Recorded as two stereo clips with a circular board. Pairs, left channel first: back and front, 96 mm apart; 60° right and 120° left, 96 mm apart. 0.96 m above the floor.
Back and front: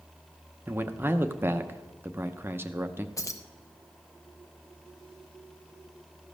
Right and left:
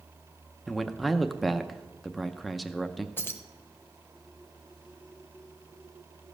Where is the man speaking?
30° left, 0.6 m.